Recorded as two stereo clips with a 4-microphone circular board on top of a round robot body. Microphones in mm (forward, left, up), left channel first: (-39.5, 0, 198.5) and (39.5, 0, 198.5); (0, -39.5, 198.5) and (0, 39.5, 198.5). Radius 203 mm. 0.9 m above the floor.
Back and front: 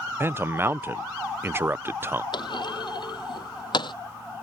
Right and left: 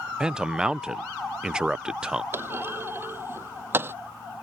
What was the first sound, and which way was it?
A man speaking, 20° left.